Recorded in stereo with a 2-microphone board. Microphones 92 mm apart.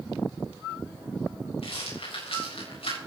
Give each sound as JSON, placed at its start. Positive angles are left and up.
{"t": 1.6, "sound": "a rattle", "side_deg": 85, "distance_m": 6.5}